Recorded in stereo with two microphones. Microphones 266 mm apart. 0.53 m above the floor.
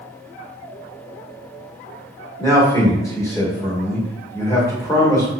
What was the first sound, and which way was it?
A man speaking, 10° left (ahead or behind).